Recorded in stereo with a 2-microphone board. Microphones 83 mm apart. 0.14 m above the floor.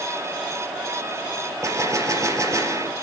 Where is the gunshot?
40° right (ahead or behind), 3 m.